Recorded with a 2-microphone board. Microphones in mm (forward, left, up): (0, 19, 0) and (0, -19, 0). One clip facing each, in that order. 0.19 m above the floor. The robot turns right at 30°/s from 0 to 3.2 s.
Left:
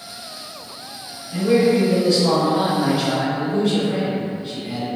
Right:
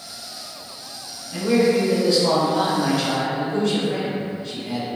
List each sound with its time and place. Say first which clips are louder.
1.3 s a man speaking: left 2 dB; 35° right, 1.3 m; by 4.9 s 25° left, 1.3 m